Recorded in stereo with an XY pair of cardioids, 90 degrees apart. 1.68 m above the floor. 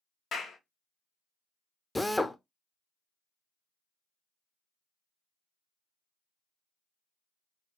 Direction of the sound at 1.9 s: 15° left.